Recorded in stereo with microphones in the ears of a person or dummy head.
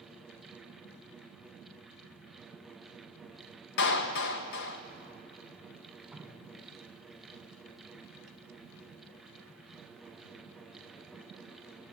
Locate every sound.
3.8 s a clap: 60° left (ahead or behind), 1.3 m
6.1 s dripping: centre (ahead or behind), 1.7 m